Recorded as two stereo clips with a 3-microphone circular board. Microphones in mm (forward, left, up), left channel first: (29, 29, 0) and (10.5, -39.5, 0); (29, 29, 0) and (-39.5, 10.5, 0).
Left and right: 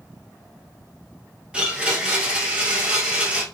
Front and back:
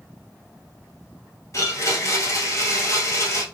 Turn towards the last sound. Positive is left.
turn(degrees=-30)